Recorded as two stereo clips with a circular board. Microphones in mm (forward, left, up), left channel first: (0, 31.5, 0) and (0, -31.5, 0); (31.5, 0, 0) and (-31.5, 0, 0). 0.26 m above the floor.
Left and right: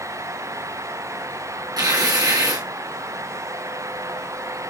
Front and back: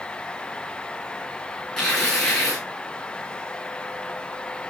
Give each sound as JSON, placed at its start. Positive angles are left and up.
{"t": 1.8, "sound": "tearing paper", "azimuth_deg": -75, "distance_m": 5.5}